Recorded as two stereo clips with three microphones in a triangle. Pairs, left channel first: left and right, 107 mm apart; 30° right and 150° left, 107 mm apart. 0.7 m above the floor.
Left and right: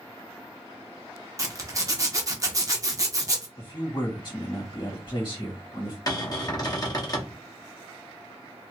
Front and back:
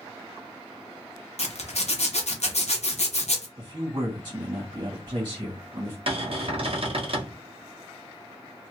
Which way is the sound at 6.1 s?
140° left.